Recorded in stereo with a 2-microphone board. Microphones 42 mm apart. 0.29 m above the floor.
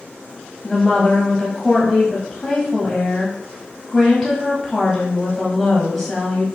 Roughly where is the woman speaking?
Centre.